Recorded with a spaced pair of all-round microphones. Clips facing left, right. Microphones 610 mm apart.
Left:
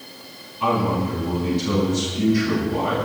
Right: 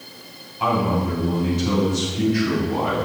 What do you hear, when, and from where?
0.6 s a man speaking: 85° right, 7.5 m; by 3.0 s 80° right, 8.5 m